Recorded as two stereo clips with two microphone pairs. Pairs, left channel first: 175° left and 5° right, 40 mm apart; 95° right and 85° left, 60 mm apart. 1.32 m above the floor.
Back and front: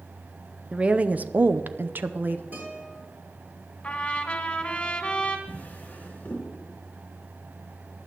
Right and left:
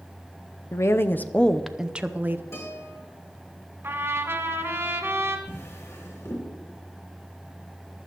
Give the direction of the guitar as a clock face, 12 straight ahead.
2 o'clock.